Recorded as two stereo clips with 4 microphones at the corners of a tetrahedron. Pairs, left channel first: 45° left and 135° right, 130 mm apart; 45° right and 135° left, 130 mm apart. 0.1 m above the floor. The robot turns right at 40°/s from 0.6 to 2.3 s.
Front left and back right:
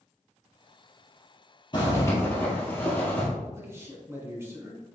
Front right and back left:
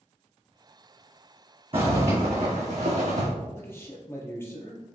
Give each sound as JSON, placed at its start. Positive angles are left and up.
{"t": 1.7, "sound": "a zipper", "azimuth_deg": 95, "distance_m": 1.9}
{"t": 3.5, "sound": "a man speaking", "azimuth_deg": -90, "distance_m": 1.4}